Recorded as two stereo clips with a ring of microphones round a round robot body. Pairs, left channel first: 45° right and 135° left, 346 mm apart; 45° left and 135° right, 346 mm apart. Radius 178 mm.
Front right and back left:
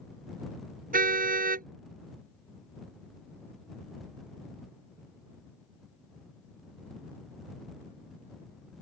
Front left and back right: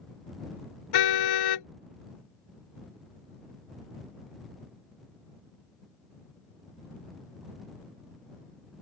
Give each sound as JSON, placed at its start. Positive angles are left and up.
{"t": 0.9, "sound": "a car horn", "azimuth_deg": 70}